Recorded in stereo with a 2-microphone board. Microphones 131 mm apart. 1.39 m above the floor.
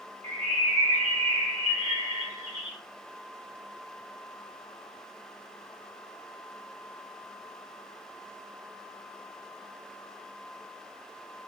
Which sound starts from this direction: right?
A bird, at 0.2 s.